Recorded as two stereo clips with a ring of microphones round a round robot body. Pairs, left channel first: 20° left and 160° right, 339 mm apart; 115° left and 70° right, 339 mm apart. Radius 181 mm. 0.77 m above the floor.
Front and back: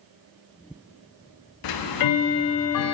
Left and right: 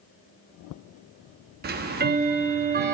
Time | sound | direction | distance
1.6 | ticking | 5° right | 0.7 m